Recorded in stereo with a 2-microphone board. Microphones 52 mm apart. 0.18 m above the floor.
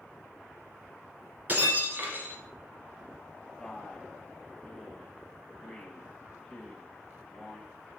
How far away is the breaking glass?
About 1.3 m.